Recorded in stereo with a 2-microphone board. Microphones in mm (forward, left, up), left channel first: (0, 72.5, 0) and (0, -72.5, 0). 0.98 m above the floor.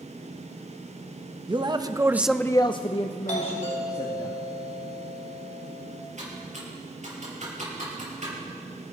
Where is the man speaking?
35° right (ahead or behind), 1.1 m; by 4.3 s 45° left (ahead or behind), 2 m.